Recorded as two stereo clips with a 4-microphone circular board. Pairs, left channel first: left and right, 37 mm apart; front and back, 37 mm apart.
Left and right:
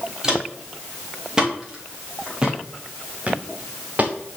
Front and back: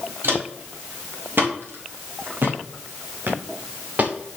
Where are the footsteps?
160° right, 4.5 m; by 4.4 s 125° right, 1.2 m.